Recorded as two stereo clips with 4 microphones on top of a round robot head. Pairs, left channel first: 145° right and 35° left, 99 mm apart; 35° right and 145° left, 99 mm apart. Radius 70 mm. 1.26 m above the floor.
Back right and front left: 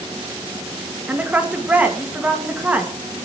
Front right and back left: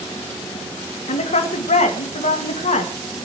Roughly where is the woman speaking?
Ahead right.